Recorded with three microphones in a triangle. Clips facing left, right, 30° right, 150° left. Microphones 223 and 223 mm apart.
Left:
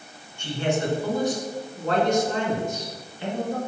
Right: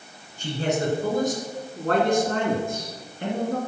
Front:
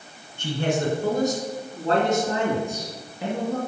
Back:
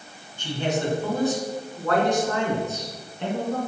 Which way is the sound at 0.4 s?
45° right.